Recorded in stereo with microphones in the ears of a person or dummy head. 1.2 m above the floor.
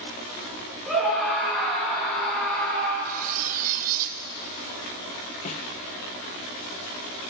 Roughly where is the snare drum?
Left.